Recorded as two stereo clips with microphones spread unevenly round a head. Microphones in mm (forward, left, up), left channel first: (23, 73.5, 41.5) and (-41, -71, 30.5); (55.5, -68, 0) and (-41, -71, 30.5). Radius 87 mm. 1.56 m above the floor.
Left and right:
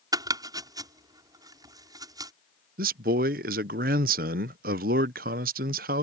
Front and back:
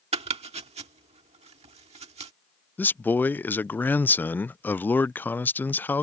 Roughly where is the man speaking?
Right.